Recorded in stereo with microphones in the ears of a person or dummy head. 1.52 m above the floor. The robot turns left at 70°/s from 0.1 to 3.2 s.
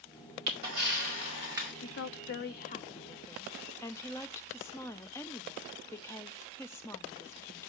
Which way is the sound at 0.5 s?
75° right.